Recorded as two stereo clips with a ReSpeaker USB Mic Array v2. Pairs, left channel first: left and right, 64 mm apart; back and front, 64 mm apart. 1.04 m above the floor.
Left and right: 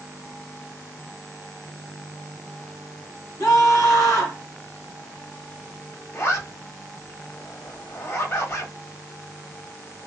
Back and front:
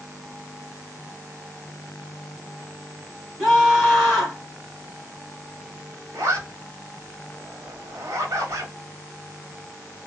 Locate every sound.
3.4 s a scream: 85° left, 1.5 m
6.1 s a zipper: 40° left, 1.3 m